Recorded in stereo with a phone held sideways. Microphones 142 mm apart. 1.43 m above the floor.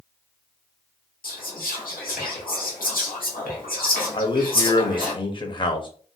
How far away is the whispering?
About 1.1 m.